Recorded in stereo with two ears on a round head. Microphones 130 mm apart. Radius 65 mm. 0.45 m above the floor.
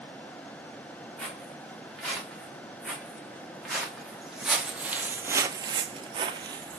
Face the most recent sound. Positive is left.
turn(degrees=-25)  # may be behind; listen again after turning